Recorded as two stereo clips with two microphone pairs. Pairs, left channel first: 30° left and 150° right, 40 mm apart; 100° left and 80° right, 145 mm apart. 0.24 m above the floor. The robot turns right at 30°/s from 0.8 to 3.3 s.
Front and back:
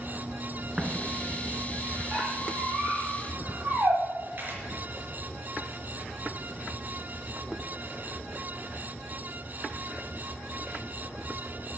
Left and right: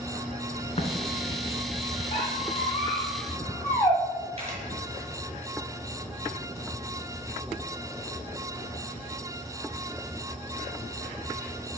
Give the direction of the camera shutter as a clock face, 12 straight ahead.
4 o'clock.